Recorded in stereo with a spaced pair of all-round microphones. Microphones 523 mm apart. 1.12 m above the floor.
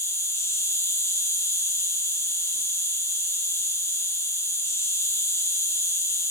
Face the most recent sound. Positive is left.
turn(degrees=5)  # may be behind; listen again after turning